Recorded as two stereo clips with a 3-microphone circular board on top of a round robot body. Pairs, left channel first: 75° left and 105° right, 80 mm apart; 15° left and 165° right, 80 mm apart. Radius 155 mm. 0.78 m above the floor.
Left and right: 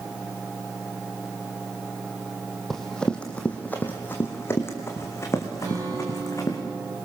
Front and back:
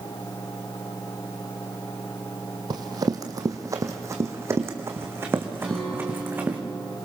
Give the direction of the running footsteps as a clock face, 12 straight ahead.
7 o'clock.